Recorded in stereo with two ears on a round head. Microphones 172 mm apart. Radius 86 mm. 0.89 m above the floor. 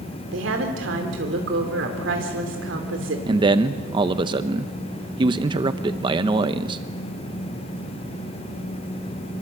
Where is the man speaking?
25° right (ahead or behind), 0.8 m.